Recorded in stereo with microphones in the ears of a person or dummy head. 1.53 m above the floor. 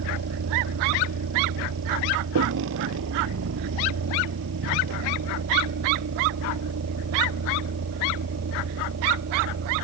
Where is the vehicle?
85° right; by 9.8 s 65° right (ahead or behind).